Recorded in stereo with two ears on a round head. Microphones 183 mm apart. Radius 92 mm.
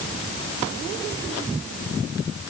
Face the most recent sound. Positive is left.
No sound to turn to.